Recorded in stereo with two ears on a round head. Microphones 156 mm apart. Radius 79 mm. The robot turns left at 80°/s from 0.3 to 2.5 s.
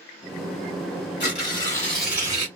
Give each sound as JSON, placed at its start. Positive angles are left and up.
{"t": 1.2, "sound": "tearing paper", "azimuth_deg": 65, "distance_m": 1.6}